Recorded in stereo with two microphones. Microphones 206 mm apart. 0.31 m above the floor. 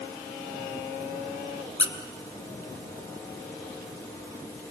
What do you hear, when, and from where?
1.8 s a squeak: 85° left, 1.4 m